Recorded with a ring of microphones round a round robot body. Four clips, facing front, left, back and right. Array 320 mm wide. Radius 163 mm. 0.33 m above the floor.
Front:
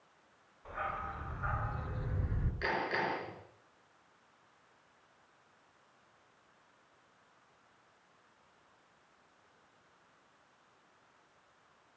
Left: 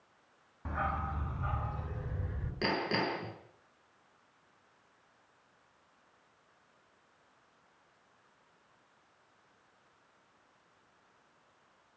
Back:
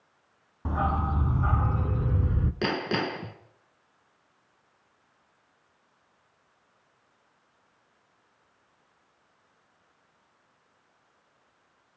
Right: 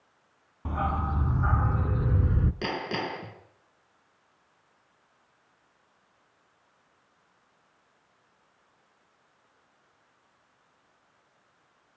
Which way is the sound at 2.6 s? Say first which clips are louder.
Right 1 dB, back 5 dB; 175° right.